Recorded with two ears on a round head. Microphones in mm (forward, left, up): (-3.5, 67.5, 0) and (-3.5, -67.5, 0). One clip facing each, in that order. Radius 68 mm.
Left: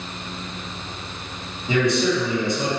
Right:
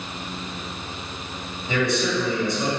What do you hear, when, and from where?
1.7 s a man speaking: 20° left (ahead or behind), 1.3 m